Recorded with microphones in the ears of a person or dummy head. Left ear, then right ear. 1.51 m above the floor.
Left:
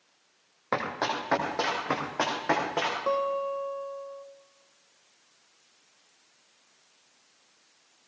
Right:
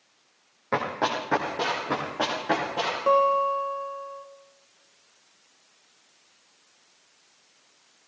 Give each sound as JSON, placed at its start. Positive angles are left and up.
{"t": 0.7, "sound": "running footsteps", "side_deg": 25, "distance_m": 3.5}
{"t": 3.1, "sound": "a guitar", "side_deg": -10, "distance_m": 1.0}